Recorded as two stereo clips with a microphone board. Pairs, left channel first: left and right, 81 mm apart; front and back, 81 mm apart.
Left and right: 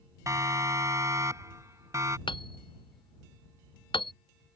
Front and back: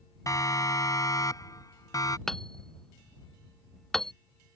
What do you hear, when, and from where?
0.3 s a siren: 45° right; by 2.2 s 40° right
2.3 s hammering: 85° left